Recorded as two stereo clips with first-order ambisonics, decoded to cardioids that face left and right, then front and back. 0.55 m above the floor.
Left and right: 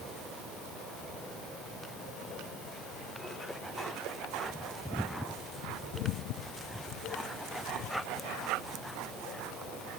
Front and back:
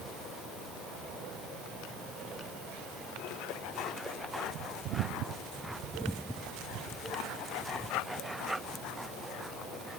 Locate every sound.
Only background noise.